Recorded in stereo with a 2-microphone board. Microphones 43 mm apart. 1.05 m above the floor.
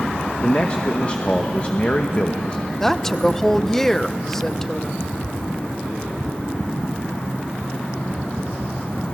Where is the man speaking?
25° left (ahead or behind), 0.9 m.